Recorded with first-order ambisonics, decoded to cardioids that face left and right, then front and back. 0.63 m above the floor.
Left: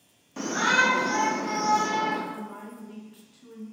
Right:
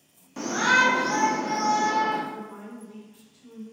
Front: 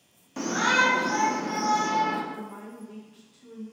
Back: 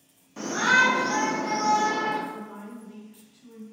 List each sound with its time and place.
0.4 s a shout: 5° right, 0.6 m; by 2.2 s 150° right, 1.1 m
2.3 s a woman speaking: 70° left, 1.1 m